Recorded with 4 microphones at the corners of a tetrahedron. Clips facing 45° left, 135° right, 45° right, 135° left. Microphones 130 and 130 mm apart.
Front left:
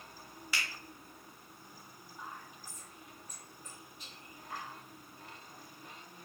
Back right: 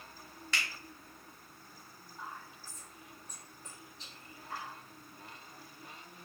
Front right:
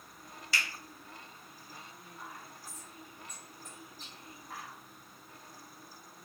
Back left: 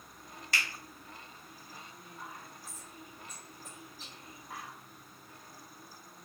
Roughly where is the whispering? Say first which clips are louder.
Back right 1 dB, back left 1 dB; behind right.